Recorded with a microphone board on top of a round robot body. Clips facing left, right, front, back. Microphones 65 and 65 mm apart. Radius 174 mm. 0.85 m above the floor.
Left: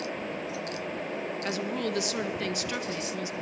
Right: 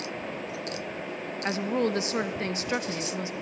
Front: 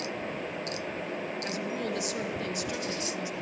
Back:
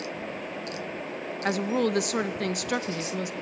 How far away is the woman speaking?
About 2 m.